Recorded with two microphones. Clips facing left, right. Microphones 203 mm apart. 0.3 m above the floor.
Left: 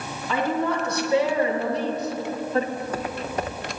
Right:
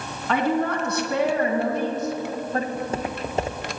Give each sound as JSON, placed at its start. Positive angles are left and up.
{"t": 0.3, "sound": "a woman speaking", "side_deg": -65, "distance_m": 2.5}
{"t": 2.8, "sound": "footsteps", "side_deg": -25, "distance_m": 1.2}